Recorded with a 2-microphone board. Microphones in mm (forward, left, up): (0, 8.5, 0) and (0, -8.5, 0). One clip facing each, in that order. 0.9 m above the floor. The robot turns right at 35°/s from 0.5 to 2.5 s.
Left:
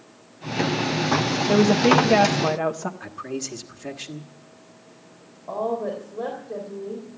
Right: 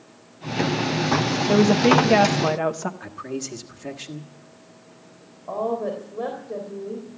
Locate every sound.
1.5 s a woman speaking: 175° left, 1.2 m; by 2.9 s 150° right, 1.2 m
3.0 s a man speaking: 5° left (ahead or behind), 1.3 m
5.5 s a woman speaking: 25° right (ahead or behind), 3.5 m